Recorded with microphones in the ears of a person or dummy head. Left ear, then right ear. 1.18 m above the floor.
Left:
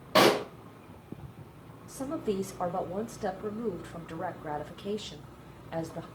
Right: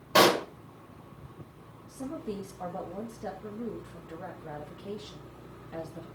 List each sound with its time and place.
0.1 s a pop: 15° right (ahead or behind), 1.4 m
1.9 s a woman speaking: 40° left (ahead or behind), 1.8 m